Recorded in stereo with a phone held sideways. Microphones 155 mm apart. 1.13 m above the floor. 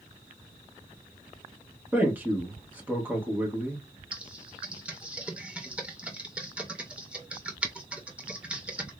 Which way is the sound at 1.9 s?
10° right (ahead or behind).